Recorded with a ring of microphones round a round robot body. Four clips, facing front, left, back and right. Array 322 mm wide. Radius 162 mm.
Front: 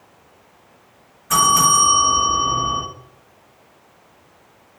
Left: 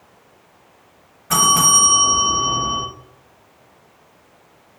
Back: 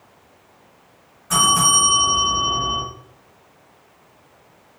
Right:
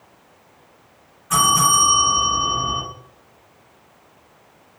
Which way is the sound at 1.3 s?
85° left.